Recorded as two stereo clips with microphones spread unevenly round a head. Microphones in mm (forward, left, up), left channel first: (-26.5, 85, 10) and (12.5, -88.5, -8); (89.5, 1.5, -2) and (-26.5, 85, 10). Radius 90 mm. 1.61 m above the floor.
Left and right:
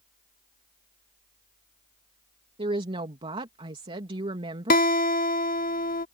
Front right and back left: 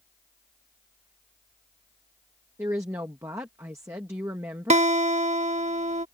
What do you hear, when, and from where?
0.0 s a fan: 65° left
2.6 s a woman speaking: 140° right
4.7 s a guitar: 120° left